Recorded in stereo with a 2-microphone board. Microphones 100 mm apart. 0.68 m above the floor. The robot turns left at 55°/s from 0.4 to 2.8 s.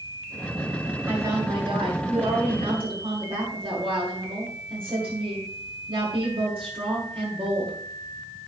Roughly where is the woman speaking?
Ahead.